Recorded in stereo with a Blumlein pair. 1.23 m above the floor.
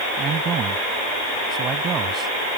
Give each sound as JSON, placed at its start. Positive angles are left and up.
{"t": 0.2, "sound": "a man speaking", "azimuth_deg": -25}